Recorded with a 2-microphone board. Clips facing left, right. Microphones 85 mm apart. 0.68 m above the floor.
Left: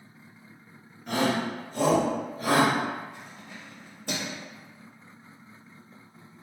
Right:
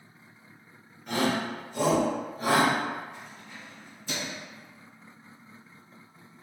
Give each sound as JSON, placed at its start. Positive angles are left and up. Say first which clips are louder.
{"t": 1.1, "sound": "a shout", "louder": "left 1 dB", "side_deg": 0, "distance_m": 1.0}
{"t": 3.1, "sound": "keys jangling", "louder": "left 1 dB", "side_deg": 60, "distance_m": 0.7}